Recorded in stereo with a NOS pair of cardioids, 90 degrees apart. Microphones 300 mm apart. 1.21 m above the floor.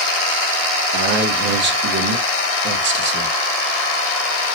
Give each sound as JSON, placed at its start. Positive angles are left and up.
{"t": 0.9, "sound": "a man speaking", "azimuth_deg": -40, "distance_m": 2.0}